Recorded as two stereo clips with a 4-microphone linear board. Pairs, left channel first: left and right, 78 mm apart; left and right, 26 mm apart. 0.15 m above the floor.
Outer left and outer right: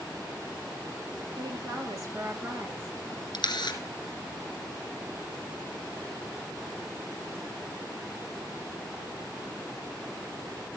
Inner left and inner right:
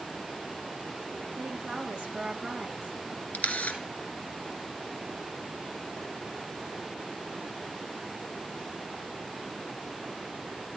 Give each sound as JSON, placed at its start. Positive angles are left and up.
{"t": 1.4, "sound": "a woman speaking", "side_deg": -45, "distance_m": 3.0}
{"t": 3.3, "sound": "a camera shutter", "side_deg": 65, "distance_m": 2.0}